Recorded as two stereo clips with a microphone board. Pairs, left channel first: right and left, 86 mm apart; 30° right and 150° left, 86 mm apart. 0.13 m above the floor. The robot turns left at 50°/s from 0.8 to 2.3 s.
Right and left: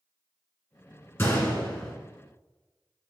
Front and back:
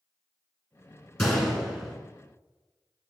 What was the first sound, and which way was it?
A gunshot, 100° right.